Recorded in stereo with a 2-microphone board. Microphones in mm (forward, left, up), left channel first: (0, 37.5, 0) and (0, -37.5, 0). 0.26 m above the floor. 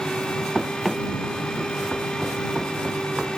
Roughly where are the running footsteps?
Centre.